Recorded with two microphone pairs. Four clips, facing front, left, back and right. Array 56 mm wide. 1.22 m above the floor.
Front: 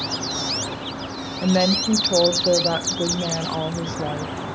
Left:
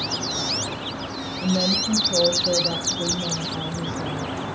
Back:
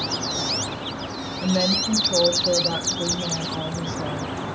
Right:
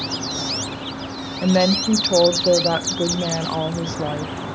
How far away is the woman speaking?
About 0.7 m.